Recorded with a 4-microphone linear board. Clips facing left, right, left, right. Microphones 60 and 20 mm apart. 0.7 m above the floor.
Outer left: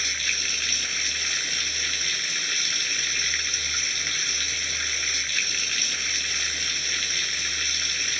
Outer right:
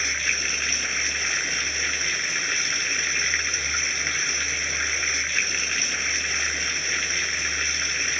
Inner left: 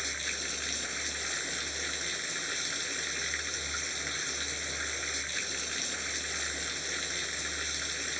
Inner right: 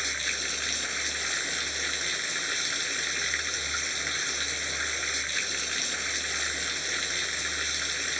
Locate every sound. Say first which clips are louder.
0.0 s running water: outer right 3 dB, inner right 5 dB; 25° right (ahead or behind)